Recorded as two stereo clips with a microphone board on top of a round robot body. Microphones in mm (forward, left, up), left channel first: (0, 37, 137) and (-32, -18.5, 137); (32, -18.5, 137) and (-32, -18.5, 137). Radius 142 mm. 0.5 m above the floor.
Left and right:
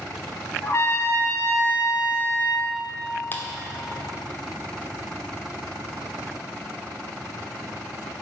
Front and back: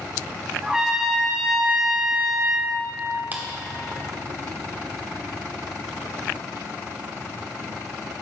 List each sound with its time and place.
0.6 s a trumpet: 100° left, 1.2 m
3.3 s a clap: 120° left, 1.2 m